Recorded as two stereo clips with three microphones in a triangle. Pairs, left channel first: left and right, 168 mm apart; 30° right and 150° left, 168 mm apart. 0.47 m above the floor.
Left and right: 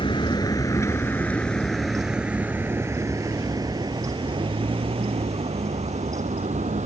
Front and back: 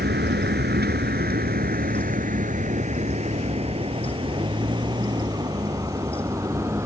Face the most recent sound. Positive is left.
turn(degrees=-135)